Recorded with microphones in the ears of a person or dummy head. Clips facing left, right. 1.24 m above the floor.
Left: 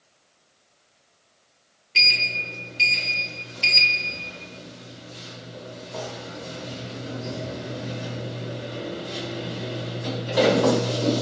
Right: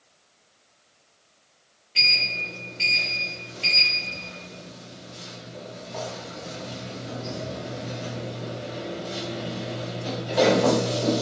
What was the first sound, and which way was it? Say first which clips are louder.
A sliding door: left 1 dB; 45° left (ahead or behind).